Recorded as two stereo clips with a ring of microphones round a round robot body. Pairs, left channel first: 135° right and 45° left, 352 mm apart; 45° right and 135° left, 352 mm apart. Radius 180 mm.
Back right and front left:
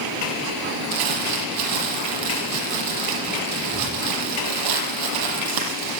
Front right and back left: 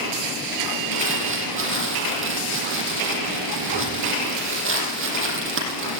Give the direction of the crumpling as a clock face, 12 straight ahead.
9 o'clock.